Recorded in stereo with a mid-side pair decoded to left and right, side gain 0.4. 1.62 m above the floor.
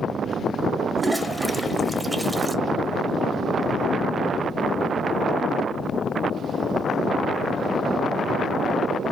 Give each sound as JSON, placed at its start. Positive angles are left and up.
{"t": 1.0, "sound": "a toilet flushing", "azimuth_deg": -10, "distance_m": 0.7}